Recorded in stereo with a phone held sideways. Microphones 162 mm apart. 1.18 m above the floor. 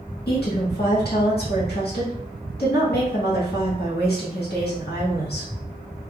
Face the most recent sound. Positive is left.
turn(degrees=75)  # may be behind; listen again after turning